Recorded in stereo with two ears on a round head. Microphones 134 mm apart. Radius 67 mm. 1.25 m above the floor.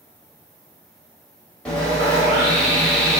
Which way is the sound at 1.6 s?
10° left (ahead or behind).